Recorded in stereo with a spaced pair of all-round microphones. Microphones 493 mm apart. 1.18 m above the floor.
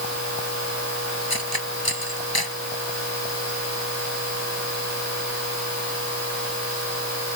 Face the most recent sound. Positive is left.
turn(degrees=45)  # may be behind; listen again after turning